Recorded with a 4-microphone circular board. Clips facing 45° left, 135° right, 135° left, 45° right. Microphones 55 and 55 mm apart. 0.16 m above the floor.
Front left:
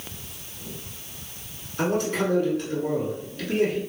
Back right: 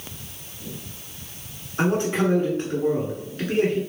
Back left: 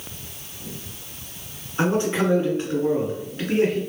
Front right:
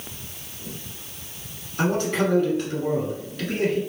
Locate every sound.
1.8 s a man speaking: 175° right, 1.4 m